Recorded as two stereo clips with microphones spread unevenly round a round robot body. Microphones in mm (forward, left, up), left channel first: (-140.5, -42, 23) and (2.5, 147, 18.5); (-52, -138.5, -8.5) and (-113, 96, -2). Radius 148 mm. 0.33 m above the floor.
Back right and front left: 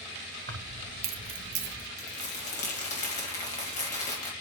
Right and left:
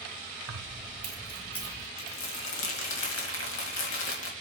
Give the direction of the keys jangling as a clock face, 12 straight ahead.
9 o'clock.